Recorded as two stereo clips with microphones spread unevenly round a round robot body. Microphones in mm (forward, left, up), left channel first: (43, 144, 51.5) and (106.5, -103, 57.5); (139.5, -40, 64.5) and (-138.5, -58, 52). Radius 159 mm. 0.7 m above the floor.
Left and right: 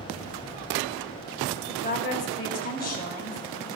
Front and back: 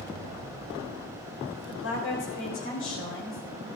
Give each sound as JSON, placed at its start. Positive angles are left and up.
{"t": 1.5, "sound": "a woman speaking", "azimuth_deg": 50, "distance_m": 3.5}